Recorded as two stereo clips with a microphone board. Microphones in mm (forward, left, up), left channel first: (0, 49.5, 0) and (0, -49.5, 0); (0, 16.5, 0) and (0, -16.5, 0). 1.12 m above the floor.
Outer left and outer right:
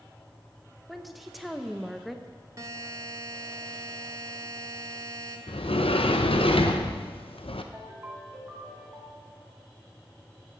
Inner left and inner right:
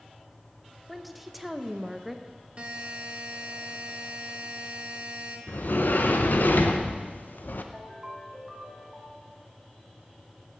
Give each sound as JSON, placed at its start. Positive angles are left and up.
{"t": 0.9, "sound": "a woman speaking", "side_deg": 0, "distance_m": 0.7}
{"t": 2.6, "sound": "a buzzer", "side_deg": -35, "distance_m": 1.1}
{"t": 5.5, "sound": "a sliding door", "side_deg": 70, "distance_m": 0.7}
{"t": 7.7, "sound": "a ringtone", "side_deg": -25, "distance_m": 1.3}